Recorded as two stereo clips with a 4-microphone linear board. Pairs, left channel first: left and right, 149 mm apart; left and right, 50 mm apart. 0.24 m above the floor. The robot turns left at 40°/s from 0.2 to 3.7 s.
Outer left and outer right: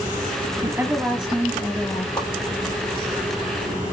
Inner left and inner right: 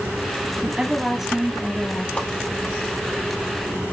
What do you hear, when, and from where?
0.6 s a woman speaking: 150° right, 1.7 m; by 2.1 s 155° left, 1.7 m
2.2 s a whoosh: 30° left (ahead or behind), 4 m; by 2.3 s 20° left (ahead or behind), 4 m